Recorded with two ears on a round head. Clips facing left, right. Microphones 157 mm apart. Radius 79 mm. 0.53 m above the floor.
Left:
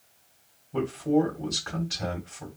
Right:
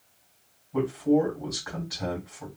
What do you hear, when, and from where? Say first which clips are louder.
0.7 s a man speaking: right 1 dB; 30° left (ahead or behind), 3 m